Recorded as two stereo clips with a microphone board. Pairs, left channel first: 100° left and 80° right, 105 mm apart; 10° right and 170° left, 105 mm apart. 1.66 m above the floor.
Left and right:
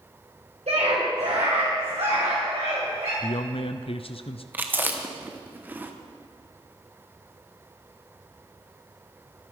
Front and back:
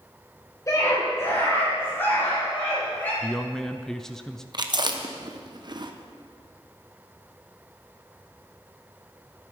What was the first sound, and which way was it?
A scream, 70° right.